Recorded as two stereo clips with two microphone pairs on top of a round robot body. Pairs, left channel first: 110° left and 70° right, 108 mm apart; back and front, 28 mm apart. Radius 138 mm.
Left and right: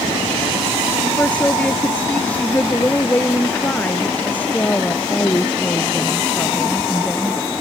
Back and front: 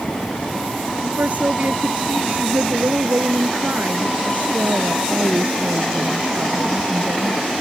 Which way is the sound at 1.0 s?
30° left.